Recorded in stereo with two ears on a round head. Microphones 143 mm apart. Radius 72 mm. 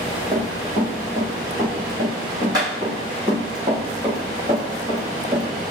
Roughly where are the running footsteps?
Right.